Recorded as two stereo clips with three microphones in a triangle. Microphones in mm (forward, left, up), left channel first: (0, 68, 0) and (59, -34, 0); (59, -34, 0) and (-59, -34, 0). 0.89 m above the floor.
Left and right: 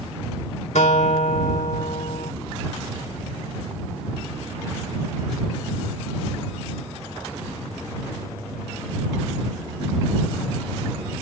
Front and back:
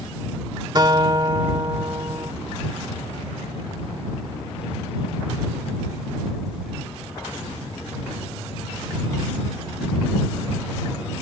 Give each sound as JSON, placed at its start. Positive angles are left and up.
{"t": 0.8, "sound": "a guitar", "azimuth_deg": 125}